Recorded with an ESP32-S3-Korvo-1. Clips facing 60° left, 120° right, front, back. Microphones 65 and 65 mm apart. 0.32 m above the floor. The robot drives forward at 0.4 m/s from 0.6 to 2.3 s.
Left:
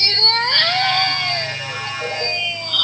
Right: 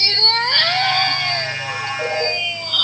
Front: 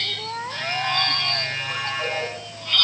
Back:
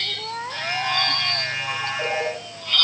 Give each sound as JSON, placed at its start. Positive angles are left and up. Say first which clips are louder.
{"t": 1.7, "sound": "a ringtone", "louder": "right 3 dB, back 2 dB", "azimuth_deg": -120, "distance_m": 7.0}